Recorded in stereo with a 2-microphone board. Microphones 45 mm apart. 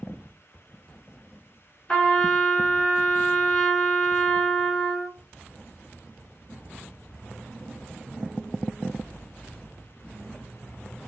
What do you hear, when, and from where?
1.9 s a trumpet: 20° left (ahead or behind), 2.0 m